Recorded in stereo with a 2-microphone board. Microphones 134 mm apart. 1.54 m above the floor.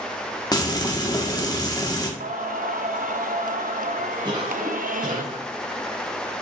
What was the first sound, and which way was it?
Frying, 30° left (ahead or behind).